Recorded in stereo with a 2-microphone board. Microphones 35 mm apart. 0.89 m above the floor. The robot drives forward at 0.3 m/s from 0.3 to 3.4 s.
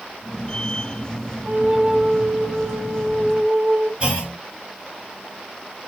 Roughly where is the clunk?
Right.